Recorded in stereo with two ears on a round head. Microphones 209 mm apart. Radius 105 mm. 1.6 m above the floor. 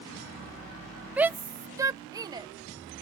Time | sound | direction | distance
1.2 | a shout | 5° right (ahead or behind) | ?